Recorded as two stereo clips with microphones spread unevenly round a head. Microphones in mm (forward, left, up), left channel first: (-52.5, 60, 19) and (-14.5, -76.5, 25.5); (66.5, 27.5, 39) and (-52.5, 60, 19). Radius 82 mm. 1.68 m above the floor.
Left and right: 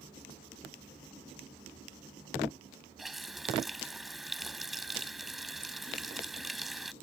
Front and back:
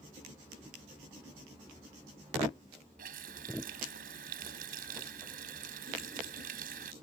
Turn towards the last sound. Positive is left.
turn(degrees=-160)